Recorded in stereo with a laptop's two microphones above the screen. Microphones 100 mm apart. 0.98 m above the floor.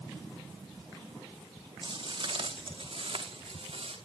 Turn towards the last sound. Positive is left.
turn(degrees=-70)  # may be behind; listen again after turning